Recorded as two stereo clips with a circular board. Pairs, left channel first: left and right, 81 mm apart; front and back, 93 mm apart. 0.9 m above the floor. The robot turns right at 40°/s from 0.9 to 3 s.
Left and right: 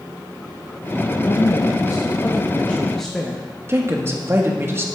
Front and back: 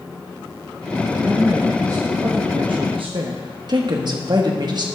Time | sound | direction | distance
1.2 | a woman speaking | 105° left | 1.0 m
3.7 | a woman speaking | 145° right | 1.4 m